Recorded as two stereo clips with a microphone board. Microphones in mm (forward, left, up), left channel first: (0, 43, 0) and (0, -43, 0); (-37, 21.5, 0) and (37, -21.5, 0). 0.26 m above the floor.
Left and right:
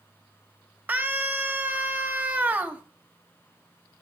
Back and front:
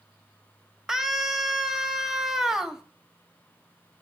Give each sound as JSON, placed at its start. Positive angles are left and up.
{"t": 0.9, "sound": "a scream", "azimuth_deg": -105, "distance_m": 1.1}